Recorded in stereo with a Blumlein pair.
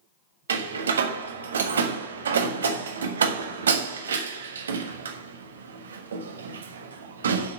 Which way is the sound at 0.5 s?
70° right.